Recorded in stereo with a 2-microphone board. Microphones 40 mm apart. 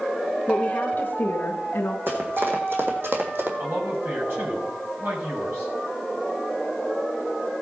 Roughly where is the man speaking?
Right.